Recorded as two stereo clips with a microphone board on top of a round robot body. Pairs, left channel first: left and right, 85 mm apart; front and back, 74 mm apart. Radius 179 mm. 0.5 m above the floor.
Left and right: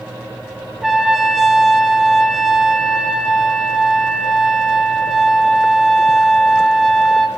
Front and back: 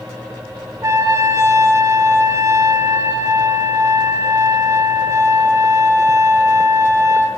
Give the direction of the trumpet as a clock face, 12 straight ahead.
6 o'clock.